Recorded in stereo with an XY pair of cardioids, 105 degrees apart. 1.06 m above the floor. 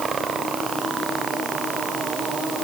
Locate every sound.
Only background noise.